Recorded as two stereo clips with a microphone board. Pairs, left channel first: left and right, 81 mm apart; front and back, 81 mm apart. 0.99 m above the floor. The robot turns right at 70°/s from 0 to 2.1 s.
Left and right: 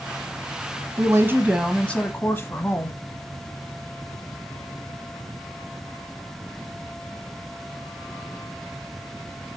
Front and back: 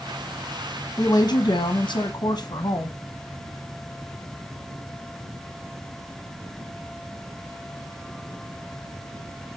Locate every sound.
1.0 s a woman speaking: 60° right, 0.9 m; by 3.0 s 20° left, 0.9 m